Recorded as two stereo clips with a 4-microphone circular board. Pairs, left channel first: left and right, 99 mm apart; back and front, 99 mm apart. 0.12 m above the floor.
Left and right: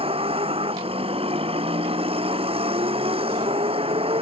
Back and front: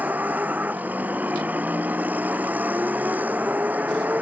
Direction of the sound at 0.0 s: 75° right.